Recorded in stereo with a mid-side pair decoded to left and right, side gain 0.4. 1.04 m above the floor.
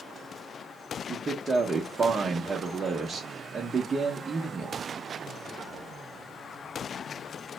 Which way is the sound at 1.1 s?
45° right.